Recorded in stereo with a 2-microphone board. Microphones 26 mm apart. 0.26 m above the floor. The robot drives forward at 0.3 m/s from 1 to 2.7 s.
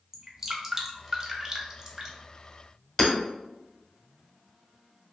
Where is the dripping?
25° right (ahead or behind), 0.6 m.